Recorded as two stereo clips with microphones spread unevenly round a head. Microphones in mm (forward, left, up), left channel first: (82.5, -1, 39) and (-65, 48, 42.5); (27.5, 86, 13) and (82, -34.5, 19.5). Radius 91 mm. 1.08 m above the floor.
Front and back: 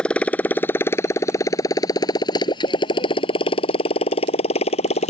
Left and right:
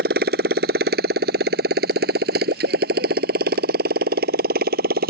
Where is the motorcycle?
105° right; by 5.1 s 75° right.